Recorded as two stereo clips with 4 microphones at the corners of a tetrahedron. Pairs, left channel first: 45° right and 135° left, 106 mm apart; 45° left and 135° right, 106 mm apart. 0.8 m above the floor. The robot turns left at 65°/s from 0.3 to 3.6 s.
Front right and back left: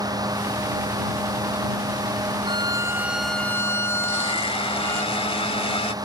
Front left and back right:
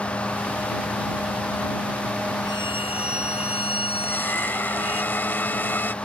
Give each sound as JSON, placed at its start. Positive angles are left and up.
{"t": 2.5, "sound": "a violin", "azimuth_deg": 95}
{"t": 4.0, "sound": "a blender", "azimuth_deg": -25}